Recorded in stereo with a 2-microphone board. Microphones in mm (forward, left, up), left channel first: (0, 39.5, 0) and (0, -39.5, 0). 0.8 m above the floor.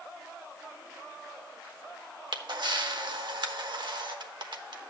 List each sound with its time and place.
2.3 s a camera shutter: 70° right (ahead or behind), 1.1 m